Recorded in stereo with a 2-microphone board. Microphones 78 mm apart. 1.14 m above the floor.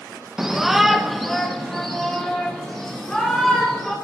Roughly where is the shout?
Centre.